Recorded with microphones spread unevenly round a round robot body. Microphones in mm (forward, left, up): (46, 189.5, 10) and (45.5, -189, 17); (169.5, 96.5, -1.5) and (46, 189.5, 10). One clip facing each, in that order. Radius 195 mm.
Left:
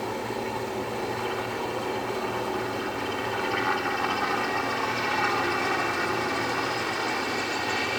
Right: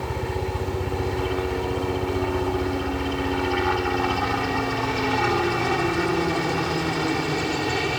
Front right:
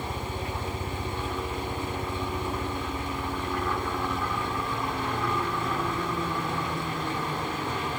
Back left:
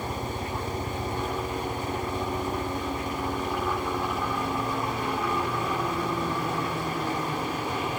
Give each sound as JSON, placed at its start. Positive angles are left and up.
{"t": 0.0, "sound": "a helicopter", "azimuth_deg": -130}